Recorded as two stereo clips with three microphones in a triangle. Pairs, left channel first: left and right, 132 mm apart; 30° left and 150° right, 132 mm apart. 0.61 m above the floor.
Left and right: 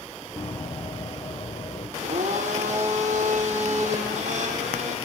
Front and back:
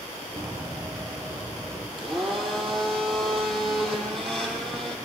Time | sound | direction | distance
0.4 | running footsteps | 140° left | 1.9 m
2.0 | a blender | 60° right | 6.5 m